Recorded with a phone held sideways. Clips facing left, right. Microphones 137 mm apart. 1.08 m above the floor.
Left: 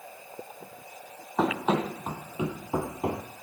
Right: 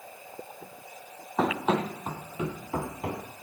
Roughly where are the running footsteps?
Centre.